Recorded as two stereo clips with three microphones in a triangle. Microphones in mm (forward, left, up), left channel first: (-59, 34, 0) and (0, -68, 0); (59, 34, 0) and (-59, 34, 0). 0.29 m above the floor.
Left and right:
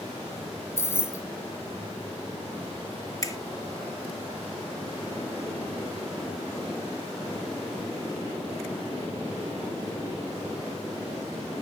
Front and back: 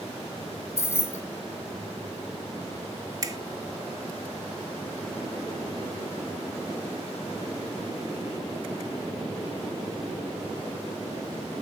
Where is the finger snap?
150° left, 1.0 m.